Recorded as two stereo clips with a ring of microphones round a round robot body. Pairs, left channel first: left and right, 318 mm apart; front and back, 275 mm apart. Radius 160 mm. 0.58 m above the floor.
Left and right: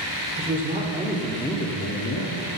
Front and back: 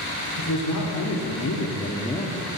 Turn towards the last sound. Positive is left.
turn(degrees=85)